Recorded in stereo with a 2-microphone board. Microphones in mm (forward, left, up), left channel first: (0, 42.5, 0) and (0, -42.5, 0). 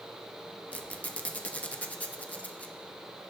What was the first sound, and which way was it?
A squeak, 20° left (ahead or behind).